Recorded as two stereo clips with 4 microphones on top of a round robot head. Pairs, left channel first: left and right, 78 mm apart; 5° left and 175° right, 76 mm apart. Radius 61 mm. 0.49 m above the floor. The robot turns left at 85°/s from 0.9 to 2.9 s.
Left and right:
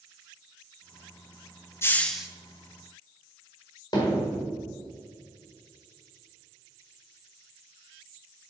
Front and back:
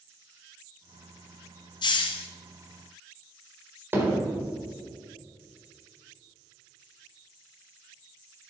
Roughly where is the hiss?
Ahead left.